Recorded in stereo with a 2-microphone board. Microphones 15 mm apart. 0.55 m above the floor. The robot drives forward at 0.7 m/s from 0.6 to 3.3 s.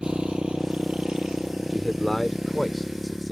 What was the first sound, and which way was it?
A motorcycle, 80° right.